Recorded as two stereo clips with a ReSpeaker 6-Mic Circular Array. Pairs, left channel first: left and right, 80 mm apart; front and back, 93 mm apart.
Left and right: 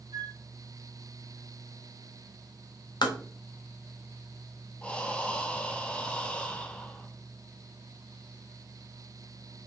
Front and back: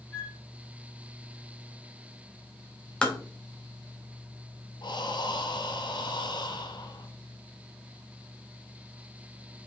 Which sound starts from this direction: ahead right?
A flute, at 0.1 s.